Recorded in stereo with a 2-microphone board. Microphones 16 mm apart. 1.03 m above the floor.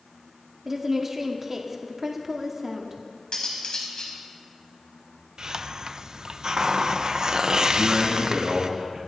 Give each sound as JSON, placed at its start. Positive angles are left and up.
{"t": 0.7, "sound": "a woman speaking", "side_deg": -25, "distance_m": 2.0}
{"t": 3.3, "sound": "cutlery clinking", "side_deg": 50, "distance_m": 4.0}
{"t": 5.4, "sound": "a hiss", "side_deg": -40, "distance_m": 0.6}
{"t": 7.7, "sound": "a man speaking", "side_deg": -55, "distance_m": 7.5}